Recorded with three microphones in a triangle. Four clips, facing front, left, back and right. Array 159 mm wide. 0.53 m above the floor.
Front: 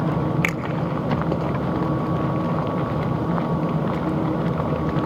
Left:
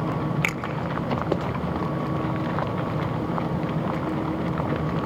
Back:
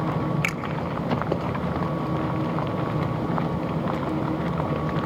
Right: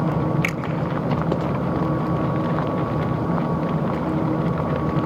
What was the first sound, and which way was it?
A finger snap, 35° left.